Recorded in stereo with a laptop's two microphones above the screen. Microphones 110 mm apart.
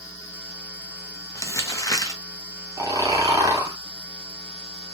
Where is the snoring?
35° right (ahead or behind), 0.8 m.